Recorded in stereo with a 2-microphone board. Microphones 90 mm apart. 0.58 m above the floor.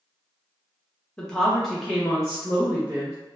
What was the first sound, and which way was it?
A woman speaking, 10° left (ahead or behind).